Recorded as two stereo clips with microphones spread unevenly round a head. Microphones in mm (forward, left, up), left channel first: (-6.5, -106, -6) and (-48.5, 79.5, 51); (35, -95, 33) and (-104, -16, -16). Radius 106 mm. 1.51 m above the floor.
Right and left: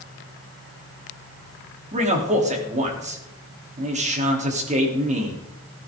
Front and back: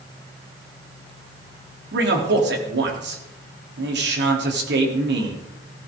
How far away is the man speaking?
About 3.5 m.